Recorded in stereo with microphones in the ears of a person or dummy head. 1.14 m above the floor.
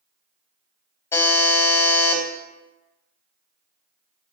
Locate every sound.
1.1 s a buzzer: 15° left (ahead or behind), 0.6 m